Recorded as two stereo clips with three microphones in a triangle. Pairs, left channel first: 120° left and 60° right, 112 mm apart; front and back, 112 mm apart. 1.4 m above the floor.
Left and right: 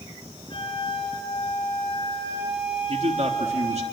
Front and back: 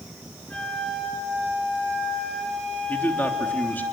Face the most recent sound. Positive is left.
turn(degrees=-75)